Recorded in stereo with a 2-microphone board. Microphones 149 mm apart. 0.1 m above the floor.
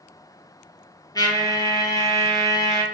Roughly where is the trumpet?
Left.